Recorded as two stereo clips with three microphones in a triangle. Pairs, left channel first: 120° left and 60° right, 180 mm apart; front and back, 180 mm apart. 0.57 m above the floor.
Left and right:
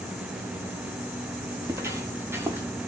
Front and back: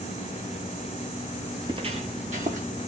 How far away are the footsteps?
About 0.7 m.